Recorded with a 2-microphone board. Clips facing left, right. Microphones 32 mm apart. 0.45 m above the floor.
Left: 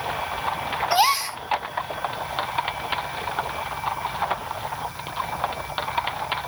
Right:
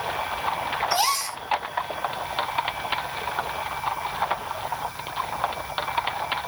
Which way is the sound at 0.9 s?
25° left (ahead or behind).